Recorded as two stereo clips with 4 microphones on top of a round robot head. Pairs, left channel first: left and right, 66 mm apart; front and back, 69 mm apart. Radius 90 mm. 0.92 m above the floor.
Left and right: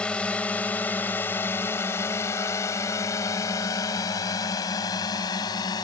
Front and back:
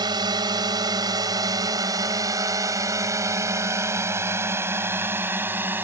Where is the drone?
165° left; by 5.8 s 120° left.